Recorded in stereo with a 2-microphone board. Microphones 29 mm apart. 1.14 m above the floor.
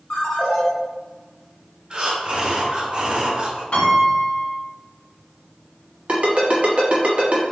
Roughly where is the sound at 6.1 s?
Right.